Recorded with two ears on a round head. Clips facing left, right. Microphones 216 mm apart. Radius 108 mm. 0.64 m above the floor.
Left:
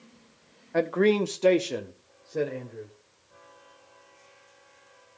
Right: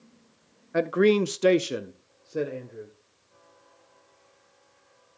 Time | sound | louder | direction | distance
0.7 | a man speaking | right 2 dB | 15° right (ahead or behind) | 0.7 m